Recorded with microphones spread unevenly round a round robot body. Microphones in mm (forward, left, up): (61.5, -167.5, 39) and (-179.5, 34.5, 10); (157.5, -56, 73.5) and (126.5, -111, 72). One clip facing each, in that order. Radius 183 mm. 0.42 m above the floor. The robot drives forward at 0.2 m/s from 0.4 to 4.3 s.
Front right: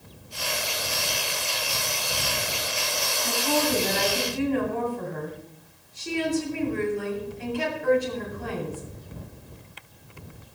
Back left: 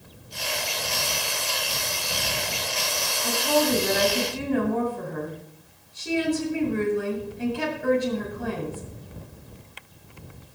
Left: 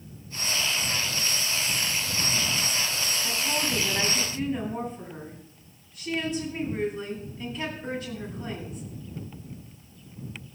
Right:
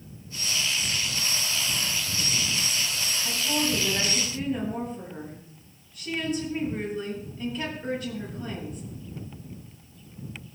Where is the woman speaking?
Straight behind, 7.5 m.